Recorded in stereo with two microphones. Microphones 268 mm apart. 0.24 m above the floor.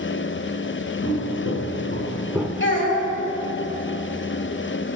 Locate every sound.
1.0 s footsteps: 65° left (ahead or behind), 1.5 m; by 2.5 s 5° right (ahead or behind), 0.8 m
2.6 s a child speaking: 45° left (ahead or behind), 1.0 m